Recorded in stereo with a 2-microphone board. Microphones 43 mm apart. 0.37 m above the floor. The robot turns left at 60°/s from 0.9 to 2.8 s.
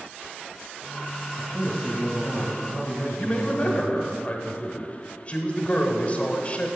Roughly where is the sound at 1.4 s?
Behind.